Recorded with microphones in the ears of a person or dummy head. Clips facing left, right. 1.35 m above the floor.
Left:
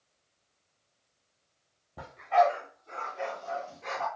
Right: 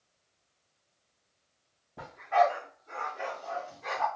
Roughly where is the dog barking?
Centre.